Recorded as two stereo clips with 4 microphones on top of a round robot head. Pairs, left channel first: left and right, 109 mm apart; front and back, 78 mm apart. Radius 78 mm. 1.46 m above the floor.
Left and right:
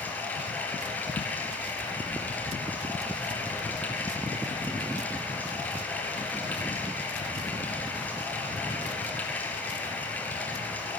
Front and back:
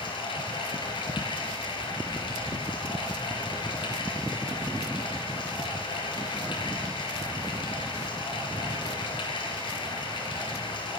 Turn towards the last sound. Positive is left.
turn(degrees=15)